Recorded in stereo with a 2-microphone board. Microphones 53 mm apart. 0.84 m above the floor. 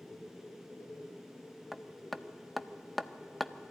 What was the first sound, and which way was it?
Hammering, centre (ahead or behind).